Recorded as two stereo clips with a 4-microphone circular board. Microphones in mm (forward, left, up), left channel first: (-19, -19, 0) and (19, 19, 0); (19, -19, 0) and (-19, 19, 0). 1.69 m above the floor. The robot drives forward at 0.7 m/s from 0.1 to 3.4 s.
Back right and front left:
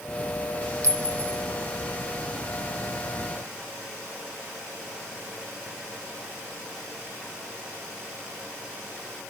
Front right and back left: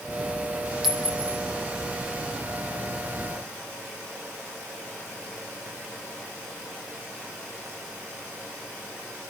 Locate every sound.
0.8 s a clink: 55° left, 2.0 m; by 1.4 s 65° left, 1.8 m